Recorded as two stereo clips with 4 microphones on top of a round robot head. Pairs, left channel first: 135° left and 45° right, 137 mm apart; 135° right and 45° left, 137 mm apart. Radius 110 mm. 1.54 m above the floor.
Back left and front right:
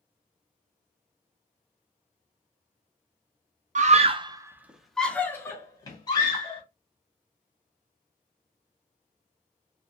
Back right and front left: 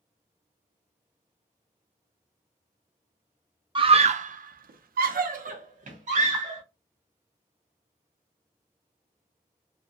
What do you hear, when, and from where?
3.8 s a scream: 10° right, 0.7 m; by 6.6 s 80° left, 1.5 m